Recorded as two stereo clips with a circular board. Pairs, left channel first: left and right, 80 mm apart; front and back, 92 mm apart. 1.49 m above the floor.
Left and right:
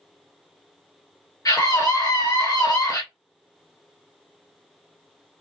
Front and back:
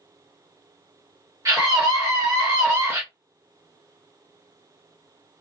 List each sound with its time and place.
1.4 s a scream: 130° left, 1.5 m; by 3.0 s 120° left, 0.8 m